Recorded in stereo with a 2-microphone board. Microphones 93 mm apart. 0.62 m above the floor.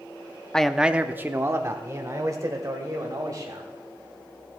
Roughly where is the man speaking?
Centre.